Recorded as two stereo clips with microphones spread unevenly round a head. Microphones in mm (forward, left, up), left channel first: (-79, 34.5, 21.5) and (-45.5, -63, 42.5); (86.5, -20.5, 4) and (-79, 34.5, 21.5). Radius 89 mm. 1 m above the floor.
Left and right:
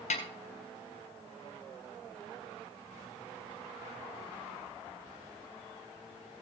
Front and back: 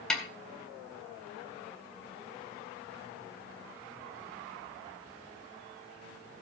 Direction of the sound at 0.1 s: 70° left.